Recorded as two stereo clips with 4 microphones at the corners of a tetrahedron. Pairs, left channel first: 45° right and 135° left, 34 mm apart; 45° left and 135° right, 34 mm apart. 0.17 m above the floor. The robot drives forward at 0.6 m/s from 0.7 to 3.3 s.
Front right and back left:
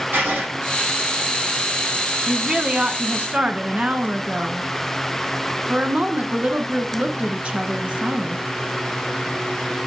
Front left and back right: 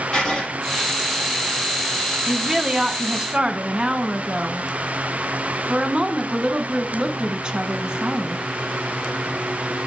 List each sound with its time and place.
0.1 s writing: 110° left, 7 m
2.3 s a woman speaking: 155° left, 1.0 m; by 8.4 s 170° left, 1.4 m